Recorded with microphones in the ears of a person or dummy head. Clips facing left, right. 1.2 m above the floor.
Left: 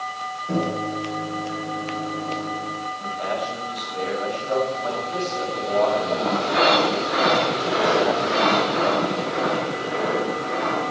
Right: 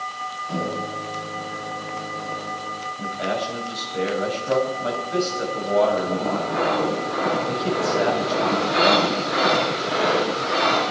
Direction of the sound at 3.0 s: 40° right (ahead or behind).